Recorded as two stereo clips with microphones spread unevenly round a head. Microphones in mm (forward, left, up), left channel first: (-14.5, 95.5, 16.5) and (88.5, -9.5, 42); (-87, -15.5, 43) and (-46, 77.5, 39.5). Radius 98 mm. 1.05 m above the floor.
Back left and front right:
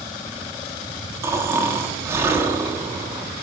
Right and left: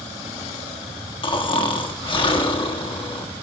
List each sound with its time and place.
1.2 s snoring: 125° right, 1.1 m